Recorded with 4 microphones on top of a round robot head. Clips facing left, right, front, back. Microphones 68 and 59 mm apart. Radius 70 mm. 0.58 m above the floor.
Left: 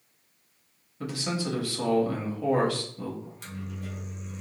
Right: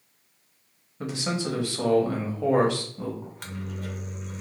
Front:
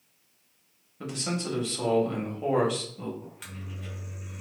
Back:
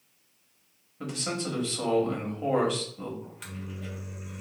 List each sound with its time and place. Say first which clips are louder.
1.0 s a man speaking: right 2 dB, even; 85° right, 1.2 m
3.2 s a microwave: right 3 dB, back 2 dB; 85° right, 0.6 m